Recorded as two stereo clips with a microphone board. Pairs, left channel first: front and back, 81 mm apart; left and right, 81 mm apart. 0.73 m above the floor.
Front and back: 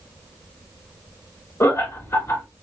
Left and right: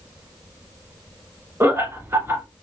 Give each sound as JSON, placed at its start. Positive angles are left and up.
{"t": 1.6, "sound": "laughter", "azimuth_deg": -45, "distance_m": 1.3}